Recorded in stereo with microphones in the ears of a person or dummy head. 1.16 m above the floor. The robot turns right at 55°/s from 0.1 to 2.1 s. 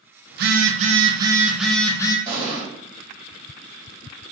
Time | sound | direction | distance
0.3 | a phone buzzing | 80° right | 0.6 m
2.3 | an explosion | 30° right (ahead or behind) | 1.9 m